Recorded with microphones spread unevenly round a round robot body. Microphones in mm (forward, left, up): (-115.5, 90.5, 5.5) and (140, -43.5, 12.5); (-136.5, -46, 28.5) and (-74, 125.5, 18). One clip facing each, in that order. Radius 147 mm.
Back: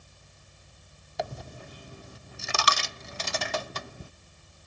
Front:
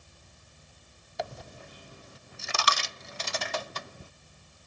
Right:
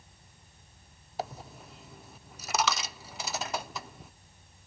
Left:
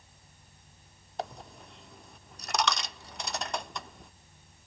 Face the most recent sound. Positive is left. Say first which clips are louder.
# back 2 dB, right 1 dB
turn(degrees=165)